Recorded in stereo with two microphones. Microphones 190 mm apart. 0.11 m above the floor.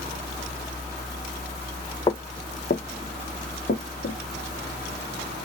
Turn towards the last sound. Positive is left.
turn(degrees=80)